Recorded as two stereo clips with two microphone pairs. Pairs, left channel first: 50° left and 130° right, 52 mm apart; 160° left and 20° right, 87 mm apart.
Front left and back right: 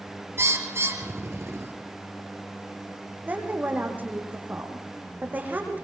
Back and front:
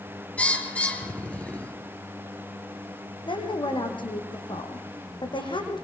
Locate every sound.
0.4 s a bird: 130° right, 2.5 m
3.3 s a woman speaking: 170° left, 6 m